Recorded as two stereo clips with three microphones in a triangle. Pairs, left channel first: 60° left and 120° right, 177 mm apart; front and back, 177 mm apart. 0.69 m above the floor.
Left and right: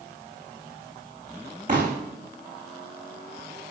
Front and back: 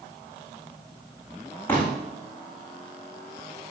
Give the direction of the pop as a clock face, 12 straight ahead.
3 o'clock.